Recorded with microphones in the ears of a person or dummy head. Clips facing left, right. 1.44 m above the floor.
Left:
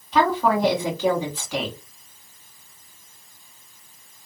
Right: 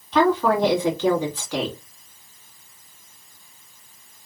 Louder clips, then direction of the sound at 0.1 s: Right 2 dB; 5° left (ahead or behind).